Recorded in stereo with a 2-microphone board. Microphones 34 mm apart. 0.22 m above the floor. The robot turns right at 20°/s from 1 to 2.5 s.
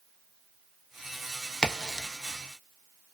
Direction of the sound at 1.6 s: 20° left (ahead or behind).